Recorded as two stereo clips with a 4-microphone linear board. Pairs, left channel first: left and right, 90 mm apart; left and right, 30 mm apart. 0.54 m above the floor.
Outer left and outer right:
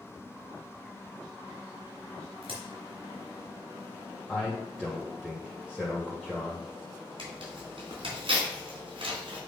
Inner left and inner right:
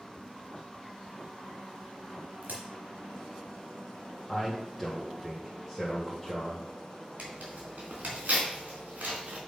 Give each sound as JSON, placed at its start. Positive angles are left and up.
{"t": 2.4, "sound": "a crack", "side_deg": -90, "distance_m": 3.5}
{"t": 4.3, "sound": "a man speaking", "side_deg": -10, "distance_m": 1.9}
{"t": 7.2, "sound": "tearing paper", "side_deg": -75, "distance_m": 3.5}